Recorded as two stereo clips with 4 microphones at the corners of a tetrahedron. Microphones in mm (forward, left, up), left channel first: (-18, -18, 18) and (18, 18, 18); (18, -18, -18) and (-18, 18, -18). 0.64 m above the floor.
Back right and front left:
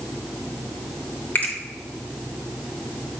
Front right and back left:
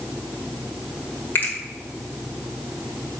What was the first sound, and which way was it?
A finger snap, 90° right.